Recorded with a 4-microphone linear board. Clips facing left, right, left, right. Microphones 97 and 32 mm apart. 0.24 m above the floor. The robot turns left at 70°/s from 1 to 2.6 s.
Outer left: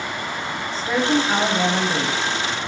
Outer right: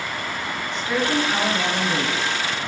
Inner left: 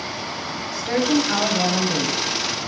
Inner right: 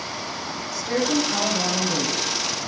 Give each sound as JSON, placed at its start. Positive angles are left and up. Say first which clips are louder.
{"t": 0.7, "sound": "a woman speaking", "louder": "outer left 3 dB, inner left 3 dB", "azimuth_deg": 105, "distance_m": 1.1}